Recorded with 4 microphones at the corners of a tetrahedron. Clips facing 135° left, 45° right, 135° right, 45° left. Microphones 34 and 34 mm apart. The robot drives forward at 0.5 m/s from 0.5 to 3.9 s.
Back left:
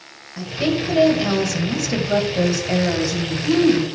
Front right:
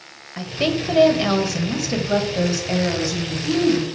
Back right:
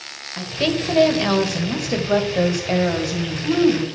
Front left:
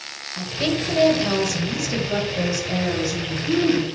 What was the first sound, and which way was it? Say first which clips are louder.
A woman speaking: back left 1 dB, back right 2 dB; 75° right.